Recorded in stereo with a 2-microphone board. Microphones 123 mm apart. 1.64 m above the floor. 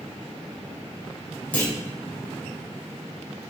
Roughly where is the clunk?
Centre.